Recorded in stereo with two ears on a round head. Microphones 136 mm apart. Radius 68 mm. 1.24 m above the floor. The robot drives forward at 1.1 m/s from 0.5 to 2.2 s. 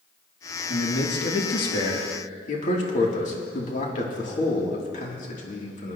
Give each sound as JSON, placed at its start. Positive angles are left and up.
{"t": 0.7, "sound": "a man speaking", "side_deg": 75, "distance_m": 1.9}